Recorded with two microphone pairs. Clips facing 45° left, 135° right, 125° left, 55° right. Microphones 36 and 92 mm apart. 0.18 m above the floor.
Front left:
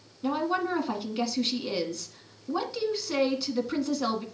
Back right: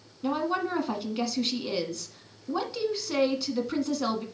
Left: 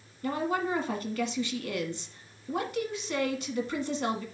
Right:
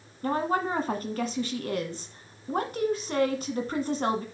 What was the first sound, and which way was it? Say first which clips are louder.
A woman speaking: even, right 3 dB; 45° right.